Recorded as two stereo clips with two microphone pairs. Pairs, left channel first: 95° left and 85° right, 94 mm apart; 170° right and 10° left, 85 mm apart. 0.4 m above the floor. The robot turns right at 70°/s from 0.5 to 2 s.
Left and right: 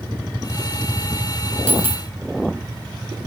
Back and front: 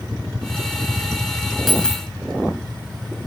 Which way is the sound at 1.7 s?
95° left.